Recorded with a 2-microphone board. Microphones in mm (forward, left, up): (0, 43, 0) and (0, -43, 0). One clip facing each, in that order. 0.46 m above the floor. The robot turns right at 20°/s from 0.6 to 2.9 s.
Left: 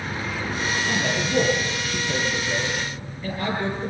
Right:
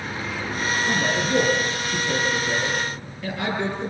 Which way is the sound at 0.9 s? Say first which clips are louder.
Right 4 dB; 65° right (ahead or behind).